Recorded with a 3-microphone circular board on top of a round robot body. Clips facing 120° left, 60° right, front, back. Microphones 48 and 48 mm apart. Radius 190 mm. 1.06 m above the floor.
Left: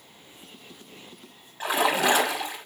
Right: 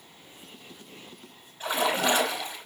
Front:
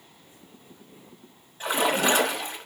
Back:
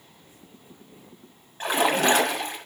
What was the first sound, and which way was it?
A splash, 135° left.